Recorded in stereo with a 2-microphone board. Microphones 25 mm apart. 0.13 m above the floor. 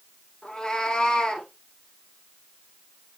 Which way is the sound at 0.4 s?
35° left (ahead or behind).